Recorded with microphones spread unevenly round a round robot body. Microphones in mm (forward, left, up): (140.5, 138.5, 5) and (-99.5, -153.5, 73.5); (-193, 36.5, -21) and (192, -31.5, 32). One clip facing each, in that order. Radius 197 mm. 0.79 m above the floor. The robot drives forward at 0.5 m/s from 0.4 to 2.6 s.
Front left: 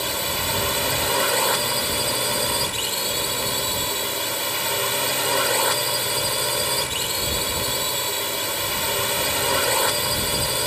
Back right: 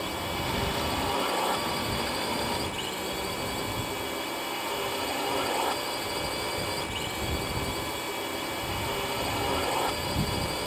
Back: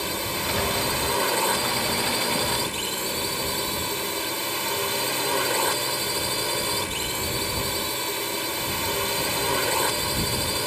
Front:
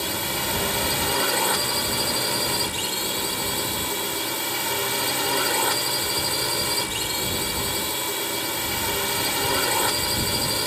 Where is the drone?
70° left; by 10.7 s 75° left.